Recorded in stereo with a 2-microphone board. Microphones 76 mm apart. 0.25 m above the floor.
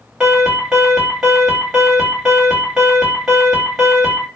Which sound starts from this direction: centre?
An alarm, at 0.2 s.